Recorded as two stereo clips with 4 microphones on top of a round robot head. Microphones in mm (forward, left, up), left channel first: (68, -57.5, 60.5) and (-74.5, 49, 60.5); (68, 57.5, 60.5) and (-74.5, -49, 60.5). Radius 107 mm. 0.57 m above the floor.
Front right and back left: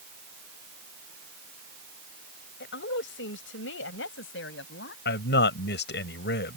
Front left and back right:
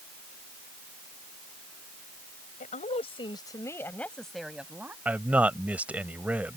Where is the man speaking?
60° right.